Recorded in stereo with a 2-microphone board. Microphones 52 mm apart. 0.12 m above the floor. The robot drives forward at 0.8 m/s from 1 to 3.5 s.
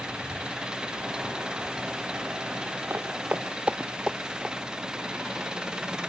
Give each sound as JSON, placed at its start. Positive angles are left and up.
{"t": 0.0, "sound": "an engine running", "side_deg": -15}
{"t": 2.9, "sound": "footsteps", "side_deg": -45}